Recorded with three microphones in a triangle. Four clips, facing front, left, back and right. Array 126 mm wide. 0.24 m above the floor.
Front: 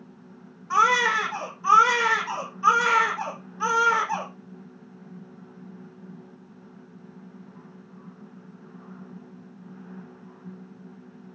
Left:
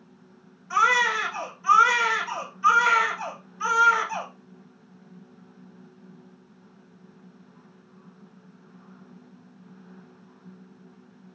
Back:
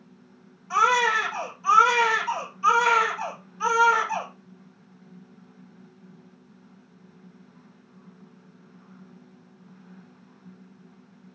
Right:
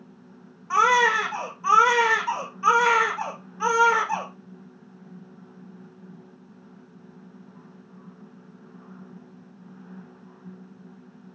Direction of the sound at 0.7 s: 70° right.